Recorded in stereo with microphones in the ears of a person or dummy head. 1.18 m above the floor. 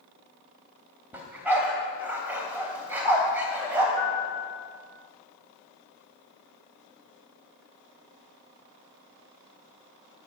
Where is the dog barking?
10° right (ahead or behind), 3 m.